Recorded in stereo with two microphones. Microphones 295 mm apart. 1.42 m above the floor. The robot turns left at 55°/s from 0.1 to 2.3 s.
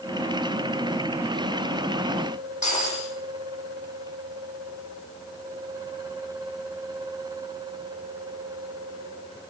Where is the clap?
No clap in this recording.